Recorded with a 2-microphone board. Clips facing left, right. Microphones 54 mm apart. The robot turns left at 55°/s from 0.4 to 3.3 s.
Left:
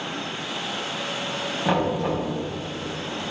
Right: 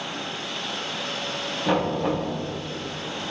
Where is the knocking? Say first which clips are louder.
Even; 20° left, 3.5 m; by 2.3 s 15° right, 3.5 m.